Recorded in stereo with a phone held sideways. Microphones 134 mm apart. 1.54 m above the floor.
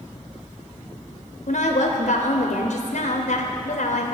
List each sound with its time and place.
1.5 s a woman speaking: 70° left (ahead or behind), 0.7 m